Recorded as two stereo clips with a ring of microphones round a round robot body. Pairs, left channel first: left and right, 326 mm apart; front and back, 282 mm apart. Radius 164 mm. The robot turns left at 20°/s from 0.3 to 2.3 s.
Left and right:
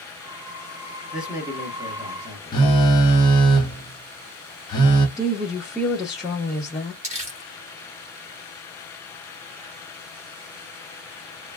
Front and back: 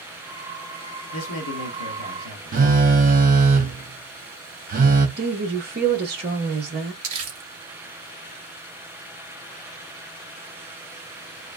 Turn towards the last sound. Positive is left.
turn(degrees=-155)